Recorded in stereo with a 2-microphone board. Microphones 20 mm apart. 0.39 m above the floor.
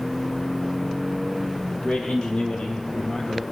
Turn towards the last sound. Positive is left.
turn(degrees=75)  # may be behind; listen again after turning